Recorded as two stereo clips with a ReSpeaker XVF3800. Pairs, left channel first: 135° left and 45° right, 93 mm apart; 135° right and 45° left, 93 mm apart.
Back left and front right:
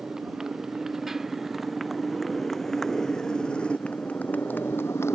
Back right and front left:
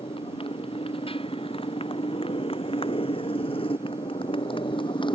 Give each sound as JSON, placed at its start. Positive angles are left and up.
{"t": 0.0, "sound": "a motorcycle", "azimuth_deg": -130}